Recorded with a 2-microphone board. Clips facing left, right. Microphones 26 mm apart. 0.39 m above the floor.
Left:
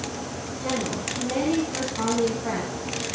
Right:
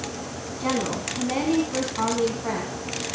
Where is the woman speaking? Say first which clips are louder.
Right 2 dB; 35° right (ahead or behind), 3 m; by 3.1 s centre (ahead or behind), 3 m.